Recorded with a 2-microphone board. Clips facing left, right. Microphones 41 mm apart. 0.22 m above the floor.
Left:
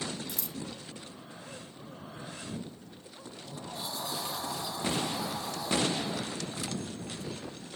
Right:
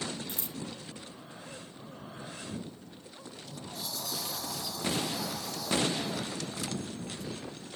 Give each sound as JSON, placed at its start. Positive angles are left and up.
{"t": 0.3, "sound": "scissors", "side_deg": -35}
{"t": 3.2, "sound": "a sliding door", "side_deg": 30}